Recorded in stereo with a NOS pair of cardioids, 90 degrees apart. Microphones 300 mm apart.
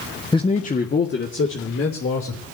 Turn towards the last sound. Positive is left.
turn(degrees=50)